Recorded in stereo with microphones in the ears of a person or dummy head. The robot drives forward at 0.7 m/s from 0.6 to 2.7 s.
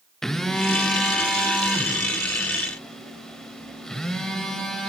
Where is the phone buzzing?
Centre (ahead or behind), 0.9 m.